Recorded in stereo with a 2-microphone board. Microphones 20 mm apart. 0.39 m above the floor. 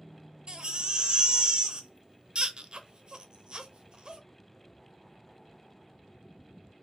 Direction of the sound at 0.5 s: 50° right (ahead or behind).